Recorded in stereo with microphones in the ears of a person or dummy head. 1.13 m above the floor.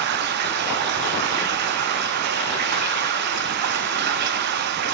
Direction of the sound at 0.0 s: 50° right (ahead or behind).